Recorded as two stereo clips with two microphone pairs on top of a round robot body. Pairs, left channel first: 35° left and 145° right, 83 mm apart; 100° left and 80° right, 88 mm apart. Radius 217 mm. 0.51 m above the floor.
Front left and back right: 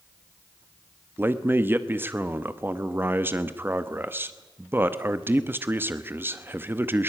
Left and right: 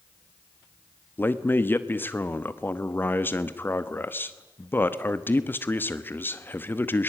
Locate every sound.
1.2 s a man speaking: 155° left, 1.2 m